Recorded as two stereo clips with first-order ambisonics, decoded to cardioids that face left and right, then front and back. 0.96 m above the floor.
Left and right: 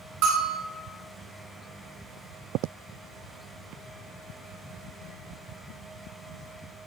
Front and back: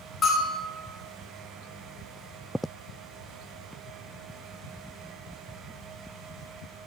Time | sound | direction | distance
0.2 | a bell | 70° right | 2.5 m